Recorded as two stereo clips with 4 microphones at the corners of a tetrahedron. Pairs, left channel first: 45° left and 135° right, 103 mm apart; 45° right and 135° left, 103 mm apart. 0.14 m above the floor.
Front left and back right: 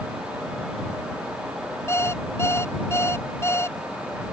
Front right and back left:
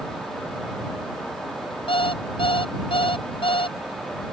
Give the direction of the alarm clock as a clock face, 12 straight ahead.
1 o'clock.